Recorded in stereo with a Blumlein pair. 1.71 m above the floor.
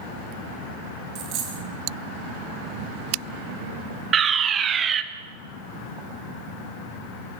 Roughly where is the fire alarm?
Ahead.